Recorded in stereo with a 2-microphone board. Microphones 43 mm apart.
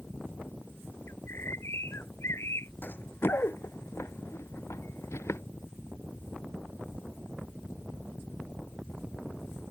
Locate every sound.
1.1 s a bird: 70° left (ahead or behind)
2.8 s running footsteps: 45° left (ahead or behind); by 5.4 s 80° left